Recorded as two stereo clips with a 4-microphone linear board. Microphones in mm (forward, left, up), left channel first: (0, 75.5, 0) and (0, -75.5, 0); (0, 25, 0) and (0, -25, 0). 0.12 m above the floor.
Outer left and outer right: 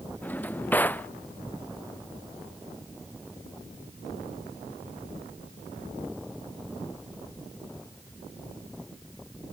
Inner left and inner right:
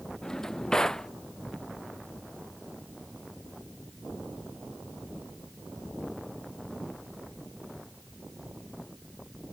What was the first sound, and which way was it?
A drawer, 10° left (ahead or behind).